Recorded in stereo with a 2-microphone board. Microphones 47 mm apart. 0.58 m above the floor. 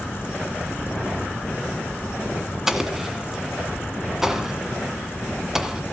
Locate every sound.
2.7 s an explosion: 10° right (ahead or behind), 1.6 m